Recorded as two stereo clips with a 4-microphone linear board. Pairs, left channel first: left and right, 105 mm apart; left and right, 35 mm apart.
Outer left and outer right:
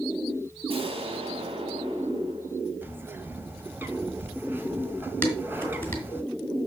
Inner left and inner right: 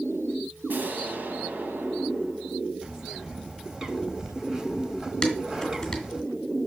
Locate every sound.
0.7 s an explosion: 60° right (ahead or behind), 1.7 m
2.8 s a bird: 20° right (ahead or behind), 1.4 m
5.2 s dishes clattering: 15° left (ahead or behind), 3 m